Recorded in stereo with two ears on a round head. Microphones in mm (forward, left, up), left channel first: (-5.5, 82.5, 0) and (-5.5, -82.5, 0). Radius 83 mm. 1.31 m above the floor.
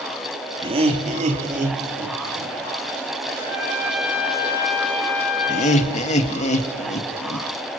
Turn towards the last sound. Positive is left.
turn(degrees=35)  # may be behind; listen again after turning